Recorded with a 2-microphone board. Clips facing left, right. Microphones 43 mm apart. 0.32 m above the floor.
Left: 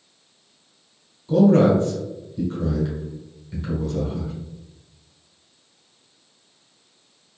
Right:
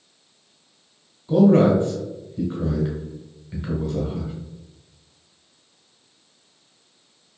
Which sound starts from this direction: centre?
A man speaking, at 1.3 s.